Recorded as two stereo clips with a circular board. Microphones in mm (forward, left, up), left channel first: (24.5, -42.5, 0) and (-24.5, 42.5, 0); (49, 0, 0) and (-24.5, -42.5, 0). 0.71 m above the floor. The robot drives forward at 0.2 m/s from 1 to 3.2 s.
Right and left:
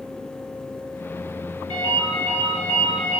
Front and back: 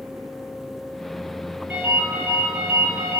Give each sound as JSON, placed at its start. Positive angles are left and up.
{"t": 1.7, "sound": "a ringtone", "azimuth_deg": 140, "distance_m": 1.7}